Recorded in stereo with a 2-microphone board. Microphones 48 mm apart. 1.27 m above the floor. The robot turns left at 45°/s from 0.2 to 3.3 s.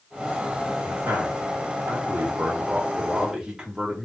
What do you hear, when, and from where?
0.8 s a man speaking: 50° right, 1.7 m; by 4.0 s 160° right, 1.7 m